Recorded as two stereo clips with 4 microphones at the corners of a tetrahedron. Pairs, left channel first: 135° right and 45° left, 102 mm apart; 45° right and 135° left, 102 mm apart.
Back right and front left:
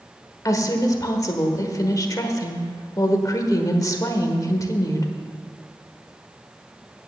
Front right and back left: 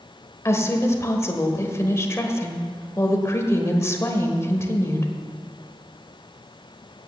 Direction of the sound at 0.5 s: 95° right.